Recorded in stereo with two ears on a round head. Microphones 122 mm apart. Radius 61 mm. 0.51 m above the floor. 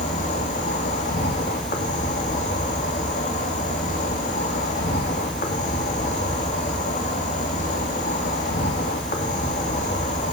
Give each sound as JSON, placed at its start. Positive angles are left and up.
{"t": 0.0, "sound": "an insect", "side_deg": 60, "distance_m": 2.5}